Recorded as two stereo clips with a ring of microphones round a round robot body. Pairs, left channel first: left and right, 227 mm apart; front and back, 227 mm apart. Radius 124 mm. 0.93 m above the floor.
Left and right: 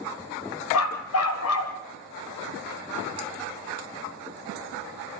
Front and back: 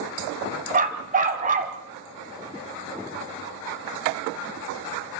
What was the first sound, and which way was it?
A dog barking, 125° left.